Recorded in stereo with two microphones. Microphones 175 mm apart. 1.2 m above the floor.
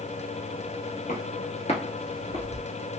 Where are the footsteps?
45° left (ahead or behind), 1.7 m; by 2.7 s 20° left (ahead or behind), 1.2 m.